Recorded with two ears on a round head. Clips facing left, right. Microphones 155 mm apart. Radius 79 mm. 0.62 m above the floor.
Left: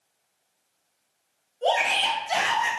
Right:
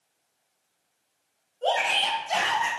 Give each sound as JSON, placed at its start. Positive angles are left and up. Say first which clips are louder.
{"t": 1.6, "sound": "a shout", "louder": "left 2 dB", "side_deg": 20, "distance_m": 3.5}